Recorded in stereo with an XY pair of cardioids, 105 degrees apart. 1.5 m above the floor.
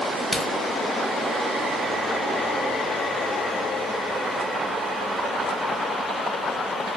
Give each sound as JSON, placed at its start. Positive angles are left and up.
{"t": 0.3, "sound": "a crack", "azimuth_deg": 5, "distance_m": 1.6}